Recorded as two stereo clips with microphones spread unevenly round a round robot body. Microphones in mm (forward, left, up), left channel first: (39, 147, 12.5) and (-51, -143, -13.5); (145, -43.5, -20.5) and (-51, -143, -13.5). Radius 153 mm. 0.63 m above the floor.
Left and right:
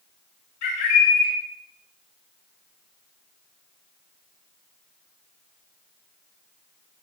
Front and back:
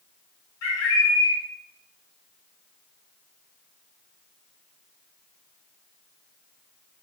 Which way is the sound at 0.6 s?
75° left.